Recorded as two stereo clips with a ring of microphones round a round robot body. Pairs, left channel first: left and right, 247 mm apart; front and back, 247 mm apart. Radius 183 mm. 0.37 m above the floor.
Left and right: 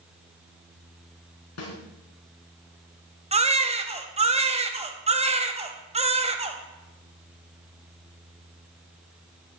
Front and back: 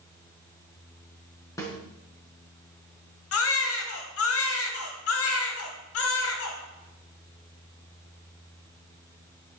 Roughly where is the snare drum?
Left.